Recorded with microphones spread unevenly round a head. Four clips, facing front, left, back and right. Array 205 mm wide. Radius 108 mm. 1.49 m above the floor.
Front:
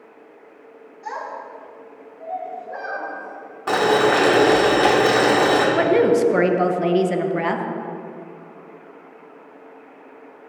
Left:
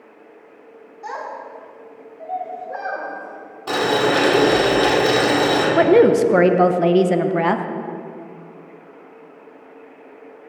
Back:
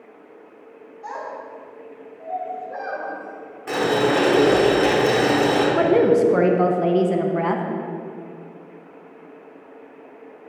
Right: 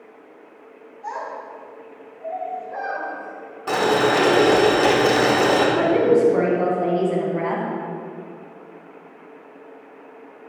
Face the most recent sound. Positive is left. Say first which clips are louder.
# left 4 dB, even
turn(degrees=65)